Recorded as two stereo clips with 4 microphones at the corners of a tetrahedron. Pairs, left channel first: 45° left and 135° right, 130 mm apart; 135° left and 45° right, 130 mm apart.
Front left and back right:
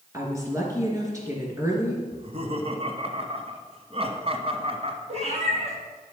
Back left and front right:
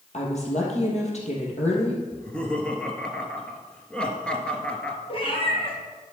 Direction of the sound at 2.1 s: 145° right.